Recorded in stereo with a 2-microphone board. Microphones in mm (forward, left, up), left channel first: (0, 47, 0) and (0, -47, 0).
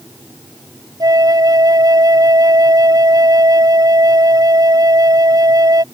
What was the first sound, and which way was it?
A flute, 40° right (ahead or behind).